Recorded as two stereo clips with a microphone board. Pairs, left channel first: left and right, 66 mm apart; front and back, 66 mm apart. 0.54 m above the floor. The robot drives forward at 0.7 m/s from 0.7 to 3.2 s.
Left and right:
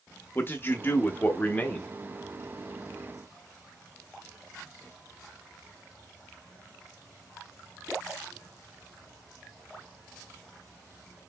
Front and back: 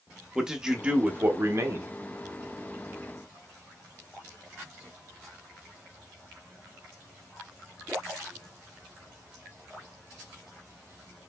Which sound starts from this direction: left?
A man speaking, at 0.3 s.